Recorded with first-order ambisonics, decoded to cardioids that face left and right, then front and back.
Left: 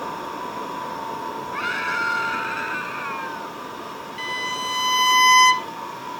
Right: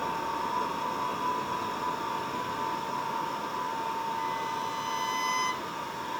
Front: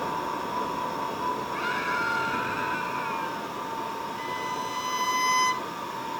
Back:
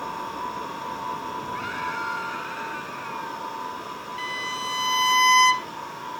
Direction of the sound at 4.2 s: 120° left.